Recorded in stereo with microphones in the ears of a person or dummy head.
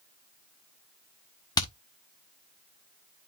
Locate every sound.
1.6 s hammering: 20° left (ahead or behind), 1.1 m